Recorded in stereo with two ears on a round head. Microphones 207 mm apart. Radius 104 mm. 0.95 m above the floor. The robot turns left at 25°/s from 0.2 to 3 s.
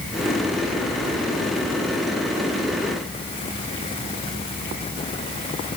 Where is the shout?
I don't hear a shout.